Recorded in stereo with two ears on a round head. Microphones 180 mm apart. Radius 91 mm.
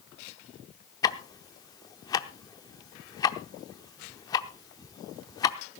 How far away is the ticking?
About 0.7 m.